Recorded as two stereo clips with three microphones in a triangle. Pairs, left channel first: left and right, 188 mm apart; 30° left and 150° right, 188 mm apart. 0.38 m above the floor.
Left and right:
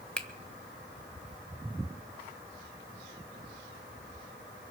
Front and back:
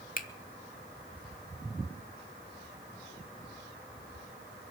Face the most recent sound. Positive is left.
turn(degrees=10)